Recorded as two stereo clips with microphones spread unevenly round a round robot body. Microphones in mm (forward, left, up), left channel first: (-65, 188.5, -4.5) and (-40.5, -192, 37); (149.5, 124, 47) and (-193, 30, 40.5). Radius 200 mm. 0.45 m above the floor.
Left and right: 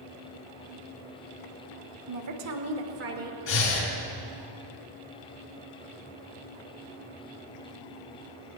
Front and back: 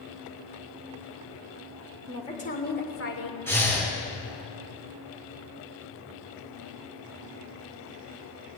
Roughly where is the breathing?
Left.